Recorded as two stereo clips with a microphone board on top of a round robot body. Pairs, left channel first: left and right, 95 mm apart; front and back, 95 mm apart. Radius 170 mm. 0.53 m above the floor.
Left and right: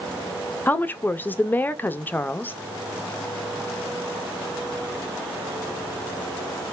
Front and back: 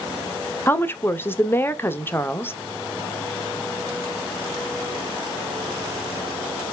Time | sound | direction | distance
0.7 | a woman speaking | 40° left | 0.8 m